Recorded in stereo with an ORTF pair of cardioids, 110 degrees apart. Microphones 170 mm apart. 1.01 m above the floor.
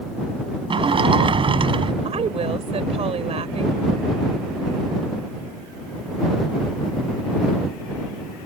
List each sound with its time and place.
0.7 s a sliding door: 30° right
2.0 s a woman speaking: 35° right